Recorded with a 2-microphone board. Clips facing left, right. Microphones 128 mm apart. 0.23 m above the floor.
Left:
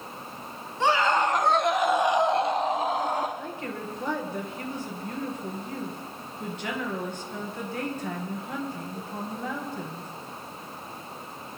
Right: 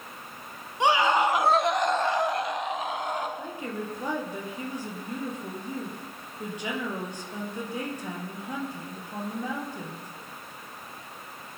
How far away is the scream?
About 2 m.